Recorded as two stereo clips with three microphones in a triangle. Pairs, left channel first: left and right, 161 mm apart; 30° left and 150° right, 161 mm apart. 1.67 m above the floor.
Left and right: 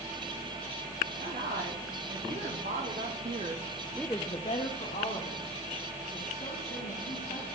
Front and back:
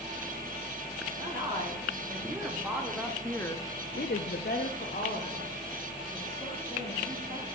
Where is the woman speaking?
80° right, 3 m; by 7.5 s 80° left, 4 m.